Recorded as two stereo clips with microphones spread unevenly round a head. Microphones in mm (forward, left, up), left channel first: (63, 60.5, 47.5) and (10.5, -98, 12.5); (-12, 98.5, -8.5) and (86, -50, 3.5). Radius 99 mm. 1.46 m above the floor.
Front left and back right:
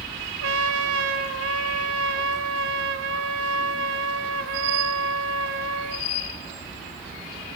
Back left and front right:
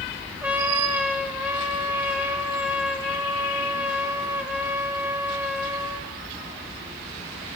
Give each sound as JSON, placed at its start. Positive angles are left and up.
{"t": 0.4, "sound": "a trumpet", "azimuth_deg": -140, "distance_m": 2.0}